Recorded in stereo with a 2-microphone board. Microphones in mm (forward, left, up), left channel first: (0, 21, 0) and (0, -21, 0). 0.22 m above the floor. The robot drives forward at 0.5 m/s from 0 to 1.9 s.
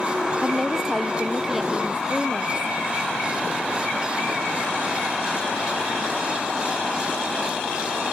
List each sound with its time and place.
0.4 s a woman speaking: 5° right (ahead or behind)